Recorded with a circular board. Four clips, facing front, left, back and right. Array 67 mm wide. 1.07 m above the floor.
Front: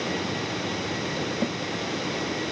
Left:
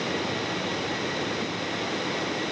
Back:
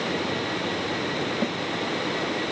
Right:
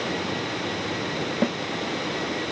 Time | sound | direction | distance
1.4 | a snare drum | 100° right | ?